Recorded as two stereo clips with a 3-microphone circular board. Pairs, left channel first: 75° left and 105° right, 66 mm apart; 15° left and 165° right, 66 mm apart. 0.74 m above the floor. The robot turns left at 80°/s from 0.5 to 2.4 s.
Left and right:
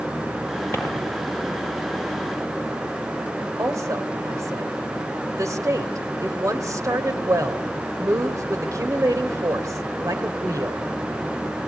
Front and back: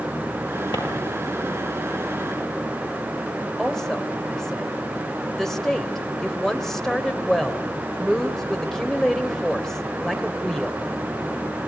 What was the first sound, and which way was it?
A drawer, 20° left.